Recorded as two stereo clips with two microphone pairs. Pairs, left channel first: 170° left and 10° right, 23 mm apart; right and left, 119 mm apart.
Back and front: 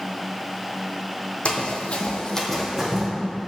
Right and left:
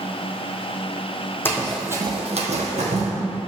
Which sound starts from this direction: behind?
Running footsteps, at 1.4 s.